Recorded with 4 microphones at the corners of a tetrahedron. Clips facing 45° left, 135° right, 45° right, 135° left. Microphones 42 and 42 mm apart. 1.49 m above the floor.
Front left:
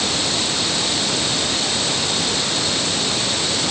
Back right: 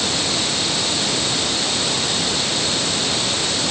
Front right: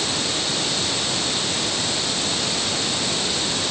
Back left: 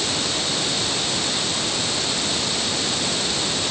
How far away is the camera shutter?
I don't hear a camera shutter.